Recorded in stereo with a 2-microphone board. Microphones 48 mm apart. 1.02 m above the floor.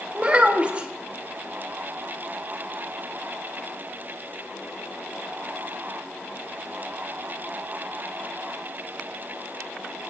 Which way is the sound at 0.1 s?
25° right (ahead or behind).